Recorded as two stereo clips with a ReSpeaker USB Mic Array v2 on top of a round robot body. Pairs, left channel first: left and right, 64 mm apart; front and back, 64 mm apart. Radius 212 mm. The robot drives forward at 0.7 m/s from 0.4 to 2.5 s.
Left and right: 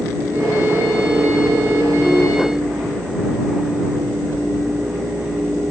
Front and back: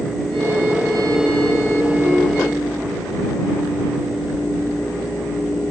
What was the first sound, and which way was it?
Only background noise.